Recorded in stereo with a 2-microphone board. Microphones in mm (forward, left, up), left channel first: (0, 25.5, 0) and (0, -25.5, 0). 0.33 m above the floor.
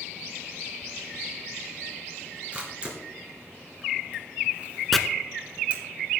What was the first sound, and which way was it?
A camera shutter, 25° right (ahead or behind).